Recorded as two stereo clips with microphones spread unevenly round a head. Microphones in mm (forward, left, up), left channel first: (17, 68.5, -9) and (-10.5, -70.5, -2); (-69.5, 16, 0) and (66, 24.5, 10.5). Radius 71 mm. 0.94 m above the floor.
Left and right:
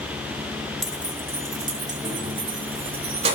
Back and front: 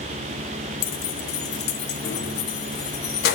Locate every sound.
0.8 s keys jangling: 170° left, 1.1 m; by 3.4 s 150° right, 2.5 m